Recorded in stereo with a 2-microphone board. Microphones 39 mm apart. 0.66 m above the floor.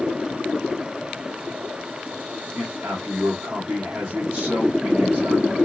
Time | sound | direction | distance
2.5 | a man speaking | 35° right (ahead or behind) | 1.4 m